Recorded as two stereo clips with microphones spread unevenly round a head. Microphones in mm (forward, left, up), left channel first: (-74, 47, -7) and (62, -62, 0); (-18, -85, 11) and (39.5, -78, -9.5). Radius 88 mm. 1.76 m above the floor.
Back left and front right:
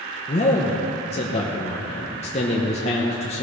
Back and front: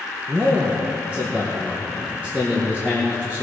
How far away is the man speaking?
About 1.0 m.